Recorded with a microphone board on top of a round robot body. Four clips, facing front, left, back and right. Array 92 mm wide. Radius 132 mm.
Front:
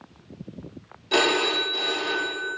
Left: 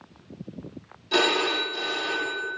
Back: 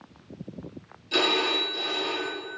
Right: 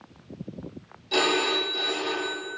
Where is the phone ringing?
5° left, 1.2 m.